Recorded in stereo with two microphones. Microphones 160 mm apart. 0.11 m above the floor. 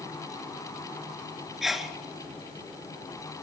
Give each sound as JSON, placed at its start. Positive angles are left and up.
{"t": 1.6, "sound": "a sneeze", "side_deg": 0, "distance_m": 1.6}